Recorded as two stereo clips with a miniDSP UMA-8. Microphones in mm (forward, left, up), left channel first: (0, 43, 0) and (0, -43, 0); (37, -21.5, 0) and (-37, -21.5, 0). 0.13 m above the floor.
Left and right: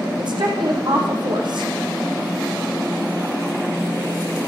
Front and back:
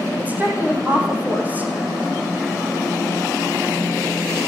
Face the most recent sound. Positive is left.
turn(degrees=-110)